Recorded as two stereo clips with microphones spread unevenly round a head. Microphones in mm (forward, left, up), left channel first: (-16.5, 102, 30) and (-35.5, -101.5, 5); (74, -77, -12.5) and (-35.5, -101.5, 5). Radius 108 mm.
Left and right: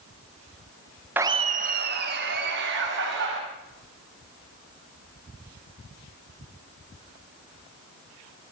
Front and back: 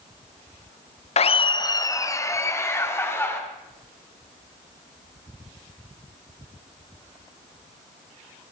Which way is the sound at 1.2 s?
15° right.